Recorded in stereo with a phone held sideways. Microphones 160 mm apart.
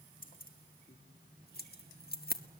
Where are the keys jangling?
60° left (ahead or behind), 1.9 m; by 2.4 s 70° left (ahead or behind), 1.2 m.